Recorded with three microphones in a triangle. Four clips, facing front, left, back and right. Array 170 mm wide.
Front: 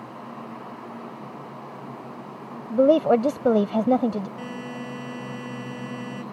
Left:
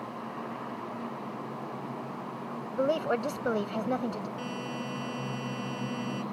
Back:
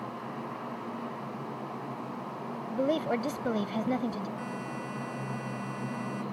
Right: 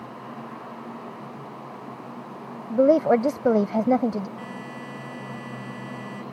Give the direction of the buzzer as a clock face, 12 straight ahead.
12 o'clock.